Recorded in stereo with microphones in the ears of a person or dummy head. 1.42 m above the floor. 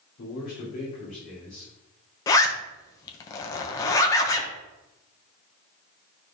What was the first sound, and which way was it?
A man speaking, 55° left (ahead or behind).